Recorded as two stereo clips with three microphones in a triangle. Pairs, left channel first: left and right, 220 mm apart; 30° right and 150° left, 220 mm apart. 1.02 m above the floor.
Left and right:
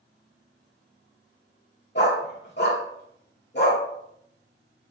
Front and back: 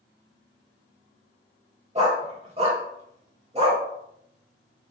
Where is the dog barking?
100° left, 1.0 m.